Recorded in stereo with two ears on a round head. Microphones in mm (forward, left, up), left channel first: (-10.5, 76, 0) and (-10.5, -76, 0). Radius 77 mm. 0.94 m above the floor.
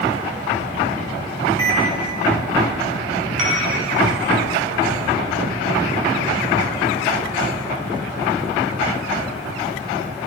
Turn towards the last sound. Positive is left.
turn(degrees=-45)  # may be behind; listen again after turning